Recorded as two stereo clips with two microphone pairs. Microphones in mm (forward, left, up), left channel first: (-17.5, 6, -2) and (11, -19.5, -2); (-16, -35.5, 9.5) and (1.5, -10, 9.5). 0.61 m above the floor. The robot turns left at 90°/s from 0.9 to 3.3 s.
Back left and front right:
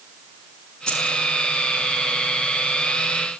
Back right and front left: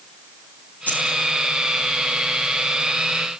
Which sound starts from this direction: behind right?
Keys jangling, at 0.9 s.